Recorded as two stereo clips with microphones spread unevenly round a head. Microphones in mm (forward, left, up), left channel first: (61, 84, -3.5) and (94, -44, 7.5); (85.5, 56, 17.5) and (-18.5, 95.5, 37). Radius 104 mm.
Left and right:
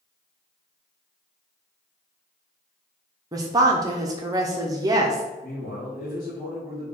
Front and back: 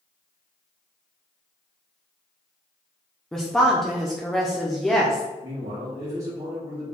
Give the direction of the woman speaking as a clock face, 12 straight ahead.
4 o'clock.